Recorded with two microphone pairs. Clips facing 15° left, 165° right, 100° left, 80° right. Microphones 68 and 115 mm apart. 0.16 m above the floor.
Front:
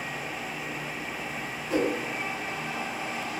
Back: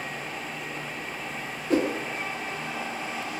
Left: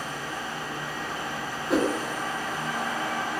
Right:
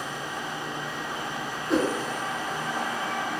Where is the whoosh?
175° right, 0.7 m.